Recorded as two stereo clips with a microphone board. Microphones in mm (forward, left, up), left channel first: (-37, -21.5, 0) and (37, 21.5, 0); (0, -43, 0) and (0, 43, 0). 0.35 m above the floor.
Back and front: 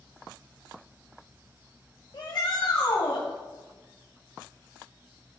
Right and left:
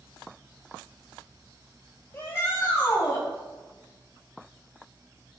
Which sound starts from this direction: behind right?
A shout, at 2.1 s.